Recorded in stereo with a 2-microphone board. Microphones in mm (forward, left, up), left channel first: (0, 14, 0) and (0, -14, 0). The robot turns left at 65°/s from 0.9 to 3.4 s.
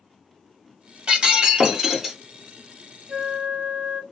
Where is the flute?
35° right (ahead or behind), 0.6 m; by 4.0 s 55° right (ahead or behind), 0.6 m.